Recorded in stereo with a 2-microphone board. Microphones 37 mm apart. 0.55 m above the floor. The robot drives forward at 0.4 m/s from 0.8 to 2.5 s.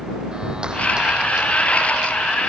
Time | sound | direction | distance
0.3 | a clap | 25° right (ahead or behind) | ?